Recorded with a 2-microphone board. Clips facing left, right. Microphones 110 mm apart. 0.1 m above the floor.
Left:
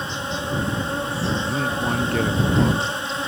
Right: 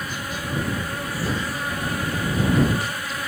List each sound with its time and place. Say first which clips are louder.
0.0 s an insect: left 3 dB; 25° left (ahead or behind)
1.5 s a man speaking: left 4 dB; 70° left (ahead or behind)